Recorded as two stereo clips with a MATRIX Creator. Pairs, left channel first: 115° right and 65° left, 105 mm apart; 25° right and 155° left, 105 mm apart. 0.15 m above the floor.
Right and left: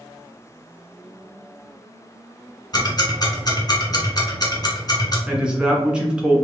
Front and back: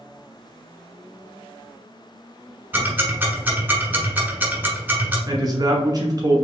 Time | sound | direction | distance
2.7 | ticking | 140° right | 1.2 m
5.3 | a man speaking | 145° left | 1.3 m